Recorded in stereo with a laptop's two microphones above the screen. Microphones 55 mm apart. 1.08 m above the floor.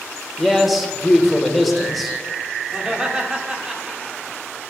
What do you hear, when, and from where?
0.4 s a man speaking: centre (ahead or behind), 1.3 m
2.7 s laughter: 20° right (ahead or behind), 1.6 m